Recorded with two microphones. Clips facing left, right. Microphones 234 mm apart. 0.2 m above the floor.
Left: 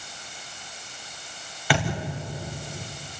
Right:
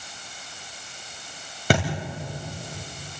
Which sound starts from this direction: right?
A thud, at 1.7 s.